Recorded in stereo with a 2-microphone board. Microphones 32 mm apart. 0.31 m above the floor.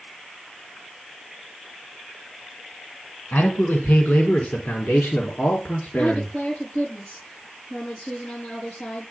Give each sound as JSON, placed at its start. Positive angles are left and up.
{"t": 3.3, "sound": "a man speaking", "side_deg": 70, "distance_m": 3.0}
{"t": 6.0, "sound": "a woman speaking", "side_deg": 45, "distance_m": 6.5}